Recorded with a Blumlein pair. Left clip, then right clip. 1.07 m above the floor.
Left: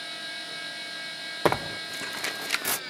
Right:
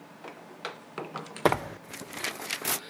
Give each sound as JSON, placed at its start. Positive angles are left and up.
{"t": 1.4, "sound": "tearing paper", "azimuth_deg": 0}